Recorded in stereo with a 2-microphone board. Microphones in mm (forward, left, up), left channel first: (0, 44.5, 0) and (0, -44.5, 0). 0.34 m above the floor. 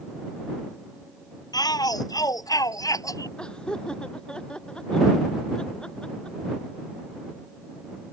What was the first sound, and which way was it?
A shout, 45° left (ahead or behind).